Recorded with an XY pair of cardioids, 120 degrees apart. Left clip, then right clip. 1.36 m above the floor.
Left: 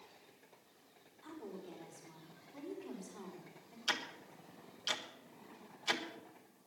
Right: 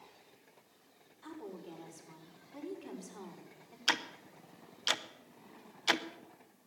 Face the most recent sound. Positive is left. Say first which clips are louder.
# right 5 dB
turn(degrees=-40)